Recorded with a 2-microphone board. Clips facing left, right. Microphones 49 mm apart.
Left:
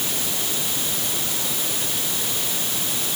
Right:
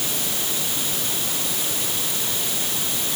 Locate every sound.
Only background noise.